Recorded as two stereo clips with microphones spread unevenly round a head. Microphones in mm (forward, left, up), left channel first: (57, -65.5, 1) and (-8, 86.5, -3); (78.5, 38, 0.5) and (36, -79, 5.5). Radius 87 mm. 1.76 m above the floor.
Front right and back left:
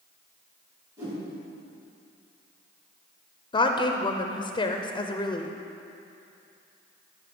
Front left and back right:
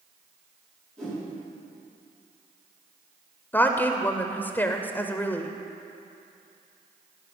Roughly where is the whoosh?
Behind.